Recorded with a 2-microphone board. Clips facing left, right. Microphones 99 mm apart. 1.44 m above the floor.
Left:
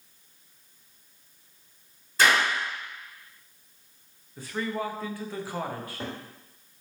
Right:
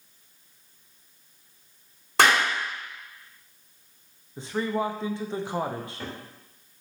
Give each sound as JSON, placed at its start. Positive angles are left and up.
{"t": 2.2, "sound": "a clap", "side_deg": -75, "distance_m": 3.5}
{"t": 4.4, "sound": "a man speaking", "side_deg": -20, "distance_m": 0.6}
{"t": 5.8, "sound": "a cupboard door", "side_deg": 25, "distance_m": 2.5}